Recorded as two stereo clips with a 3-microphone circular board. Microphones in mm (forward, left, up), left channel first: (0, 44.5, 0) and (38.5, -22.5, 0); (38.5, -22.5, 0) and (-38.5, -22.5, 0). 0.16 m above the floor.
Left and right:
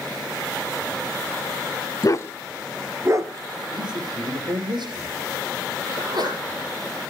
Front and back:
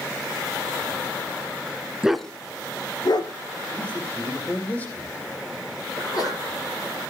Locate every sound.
2.0 s a dog barking: 100° left, 0.8 m; by 3.3 s 20° right, 1.3 m
3.7 s a man speaking: 70° right, 6 m
6.0 s a sneeze: 40° right, 6 m